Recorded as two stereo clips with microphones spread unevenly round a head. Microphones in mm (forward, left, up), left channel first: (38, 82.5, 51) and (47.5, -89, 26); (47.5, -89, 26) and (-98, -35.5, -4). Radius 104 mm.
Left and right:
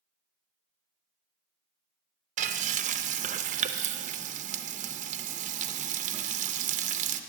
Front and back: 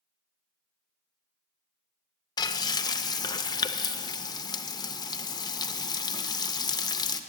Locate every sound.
2.4 s frying: 50° right, 0.5 m